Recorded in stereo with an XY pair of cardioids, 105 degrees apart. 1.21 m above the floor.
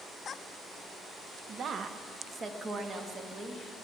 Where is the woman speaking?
55° right, 0.8 m; by 3.6 s 30° right, 2 m.